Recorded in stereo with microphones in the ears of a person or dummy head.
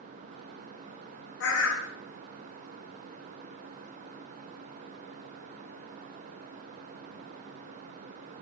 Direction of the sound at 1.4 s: 60° left (ahead or behind).